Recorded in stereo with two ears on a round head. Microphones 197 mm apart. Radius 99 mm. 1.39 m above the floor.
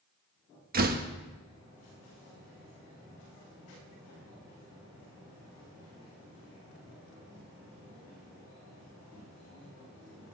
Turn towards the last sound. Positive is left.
turn(degrees=-45)  # may be behind; listen again after turning